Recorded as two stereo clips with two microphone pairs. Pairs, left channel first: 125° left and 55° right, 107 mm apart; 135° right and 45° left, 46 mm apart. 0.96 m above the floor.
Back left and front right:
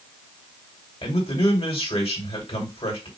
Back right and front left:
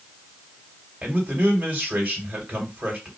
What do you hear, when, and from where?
1.0 s a man speaking: 105° left, 2.5 m